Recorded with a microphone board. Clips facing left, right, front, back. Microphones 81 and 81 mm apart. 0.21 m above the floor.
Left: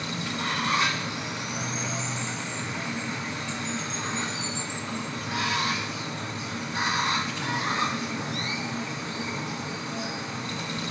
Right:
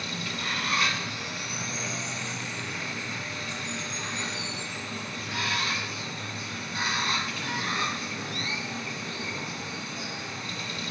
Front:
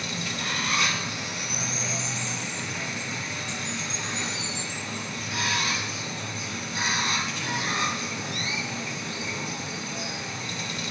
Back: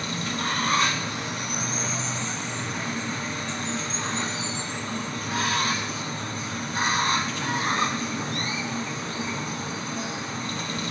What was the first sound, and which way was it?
Running water, 145° left.